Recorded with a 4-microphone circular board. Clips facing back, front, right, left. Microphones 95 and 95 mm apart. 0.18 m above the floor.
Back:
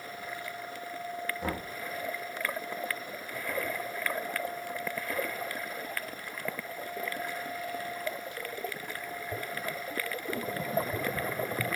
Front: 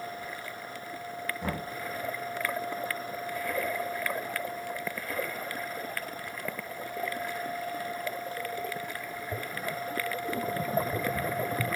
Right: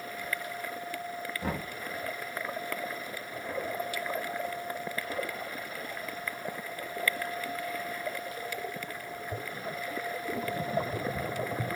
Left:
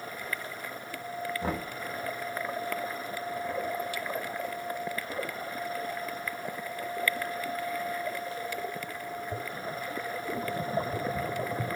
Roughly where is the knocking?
Left.